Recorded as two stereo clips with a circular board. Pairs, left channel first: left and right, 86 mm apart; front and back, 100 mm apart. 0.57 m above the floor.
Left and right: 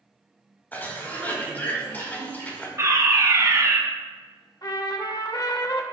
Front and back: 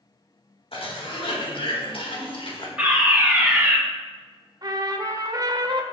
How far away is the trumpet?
About 0.9 m.